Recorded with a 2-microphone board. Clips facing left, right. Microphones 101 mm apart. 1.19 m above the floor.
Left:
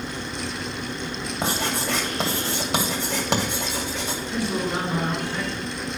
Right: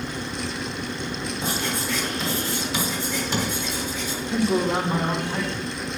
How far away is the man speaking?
About 3.5 m.